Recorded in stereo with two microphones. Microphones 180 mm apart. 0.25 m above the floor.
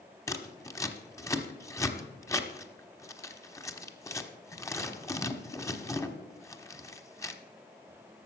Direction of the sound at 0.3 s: 15° left (ahead or behind).